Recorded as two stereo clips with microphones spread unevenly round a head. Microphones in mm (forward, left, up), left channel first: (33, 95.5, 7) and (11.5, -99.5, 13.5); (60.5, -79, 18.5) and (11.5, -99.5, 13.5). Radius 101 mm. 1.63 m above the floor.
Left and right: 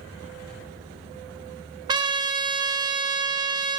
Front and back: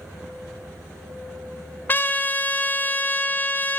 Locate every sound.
1.9 s a trumpet: 30° right, 0.6 m